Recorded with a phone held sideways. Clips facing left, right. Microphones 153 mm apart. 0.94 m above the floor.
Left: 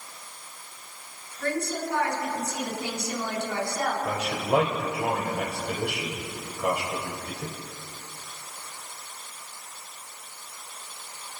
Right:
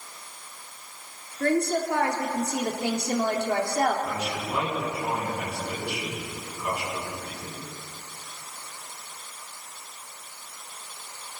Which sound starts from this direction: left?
A man speaking, at 4.0 s.